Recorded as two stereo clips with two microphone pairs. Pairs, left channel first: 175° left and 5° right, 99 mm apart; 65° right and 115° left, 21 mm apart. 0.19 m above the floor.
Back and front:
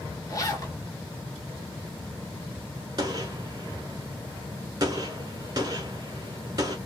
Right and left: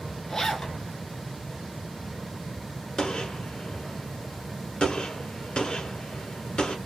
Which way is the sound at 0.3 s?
130° right.